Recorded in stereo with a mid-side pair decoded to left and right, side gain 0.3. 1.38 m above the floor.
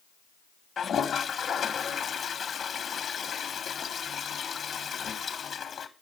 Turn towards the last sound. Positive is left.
turn(degrees=70)